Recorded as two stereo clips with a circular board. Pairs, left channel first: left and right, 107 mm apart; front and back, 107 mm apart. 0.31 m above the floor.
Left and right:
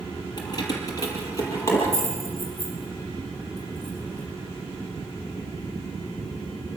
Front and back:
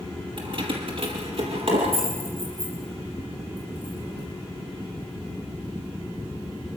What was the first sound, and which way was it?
Keys jangling, 140° left.